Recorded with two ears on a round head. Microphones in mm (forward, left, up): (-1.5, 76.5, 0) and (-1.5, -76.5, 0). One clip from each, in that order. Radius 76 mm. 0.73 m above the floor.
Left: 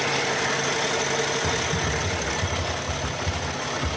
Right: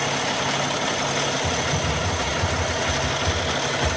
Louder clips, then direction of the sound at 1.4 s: Right 1 dB; 30° left (ahead or behind).